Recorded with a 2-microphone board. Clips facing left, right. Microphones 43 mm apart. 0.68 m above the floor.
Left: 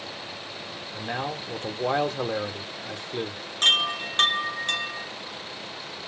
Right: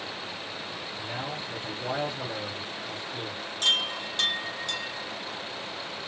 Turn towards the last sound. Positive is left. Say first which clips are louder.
# left 5 dB
turn(degrees=45)  # may be behind; listen again after turning